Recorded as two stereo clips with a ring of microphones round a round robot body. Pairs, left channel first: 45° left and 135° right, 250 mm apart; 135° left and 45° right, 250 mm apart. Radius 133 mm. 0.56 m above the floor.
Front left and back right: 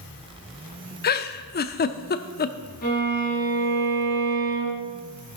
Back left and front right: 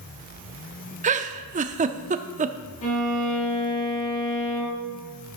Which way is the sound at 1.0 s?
5° left.